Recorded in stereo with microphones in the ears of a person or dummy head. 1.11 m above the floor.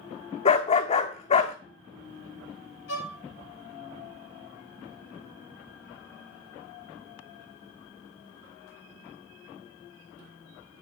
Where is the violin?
65° left (ahead or behind), 1.5 m.